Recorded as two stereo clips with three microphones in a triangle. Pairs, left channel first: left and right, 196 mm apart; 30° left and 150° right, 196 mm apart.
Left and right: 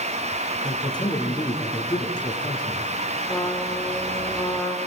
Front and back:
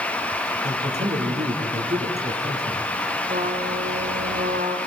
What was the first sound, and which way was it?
A man speaking, 160° left.